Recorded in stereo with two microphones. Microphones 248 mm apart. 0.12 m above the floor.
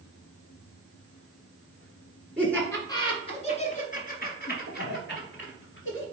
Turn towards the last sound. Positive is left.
turn(degrees=55)  # may be behind; listen again after turning